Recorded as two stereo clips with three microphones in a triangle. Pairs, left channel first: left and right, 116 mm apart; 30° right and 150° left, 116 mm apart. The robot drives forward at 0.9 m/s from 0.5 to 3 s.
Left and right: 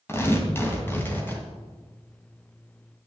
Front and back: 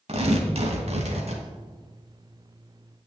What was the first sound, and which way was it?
Tearing paper, 155° left.